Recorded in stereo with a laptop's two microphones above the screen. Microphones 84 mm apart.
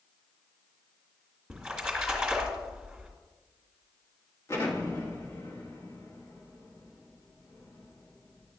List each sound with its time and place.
1.5 s a splash: 5° right (ahead or behind), 2 m
4.5 s an explosion: 35° left (ahead or behind), 1.5 m